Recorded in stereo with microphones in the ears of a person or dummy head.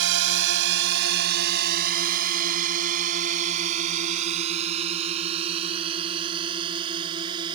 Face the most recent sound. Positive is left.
turn(degrees=-30)  # may be behind; listen again after turning